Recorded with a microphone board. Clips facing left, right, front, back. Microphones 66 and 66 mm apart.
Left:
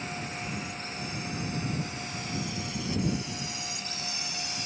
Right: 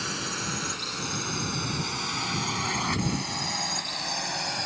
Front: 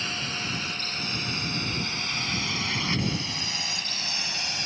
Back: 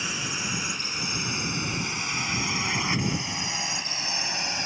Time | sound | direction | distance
0.0 | a drone | 105° right | ?